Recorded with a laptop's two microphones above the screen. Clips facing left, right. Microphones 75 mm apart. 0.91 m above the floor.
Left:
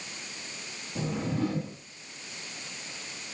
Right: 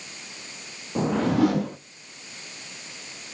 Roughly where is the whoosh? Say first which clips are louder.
Right 9 dB; right.